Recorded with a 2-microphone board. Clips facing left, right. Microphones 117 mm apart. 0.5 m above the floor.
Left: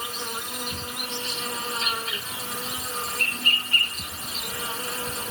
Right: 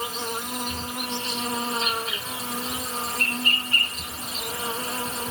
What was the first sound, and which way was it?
An insect, 35° right (ahead or behind).